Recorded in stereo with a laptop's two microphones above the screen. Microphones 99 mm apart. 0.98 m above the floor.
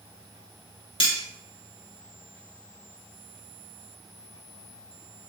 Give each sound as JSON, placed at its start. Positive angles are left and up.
{"t": 1.0, "sound": "cutlery clinking", "side_deg": 65, "distance_m": 1.0}